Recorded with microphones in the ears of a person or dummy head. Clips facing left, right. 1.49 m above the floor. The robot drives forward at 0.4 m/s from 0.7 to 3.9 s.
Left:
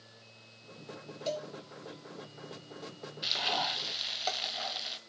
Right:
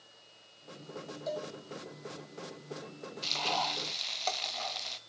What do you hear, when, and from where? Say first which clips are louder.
1.3 s a cowbell: left 2 dB; 35° left (ahead or behind), 2 m; by 1.5 s 40° left (ahead or behind), 2 m
3.2 s frying: right 1 dB; 15° left (ahead or behind), 0.8 m; by 5.0 s 10° left (ahead or behind), 1.1 m